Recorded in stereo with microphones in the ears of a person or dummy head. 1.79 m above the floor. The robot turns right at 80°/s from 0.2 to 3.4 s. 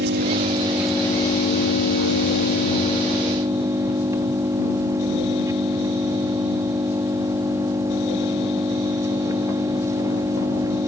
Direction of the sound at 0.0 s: 55° right.